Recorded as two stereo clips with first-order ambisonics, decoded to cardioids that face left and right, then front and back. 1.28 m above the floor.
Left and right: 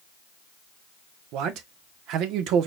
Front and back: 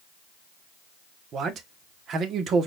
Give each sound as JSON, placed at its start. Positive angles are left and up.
{"t": 1.3, "sound": "a man speaking", "azimuth_deg": -125, "distance_m": 1.0}